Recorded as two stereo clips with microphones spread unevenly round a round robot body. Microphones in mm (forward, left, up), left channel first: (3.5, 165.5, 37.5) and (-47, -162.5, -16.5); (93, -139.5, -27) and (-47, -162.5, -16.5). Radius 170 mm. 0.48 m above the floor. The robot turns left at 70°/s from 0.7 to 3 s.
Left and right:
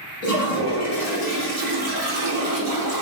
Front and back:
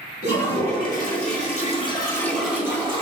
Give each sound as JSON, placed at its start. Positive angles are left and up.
{"t": 0.2, "sound": "a toilet flushing", "azimuth_deg": 45, "distance_m": 2.0}